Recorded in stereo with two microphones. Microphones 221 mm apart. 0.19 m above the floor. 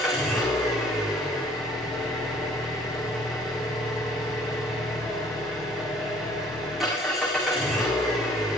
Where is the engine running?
Centre (ahead or behind), 7 m.